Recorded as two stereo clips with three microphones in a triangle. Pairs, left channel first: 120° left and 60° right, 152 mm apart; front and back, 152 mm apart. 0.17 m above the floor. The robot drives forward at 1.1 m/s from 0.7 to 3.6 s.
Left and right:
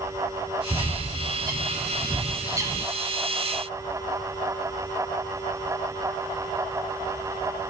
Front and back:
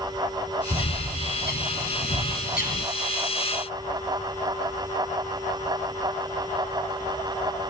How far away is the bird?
About 3 m.